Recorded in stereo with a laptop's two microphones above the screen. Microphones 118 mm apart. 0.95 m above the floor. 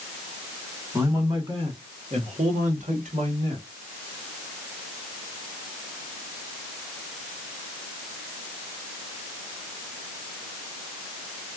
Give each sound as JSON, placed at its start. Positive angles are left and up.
{"t": 0.9, "sound": "a man speaking", "side_deg": -30, "distance_m": 1.6}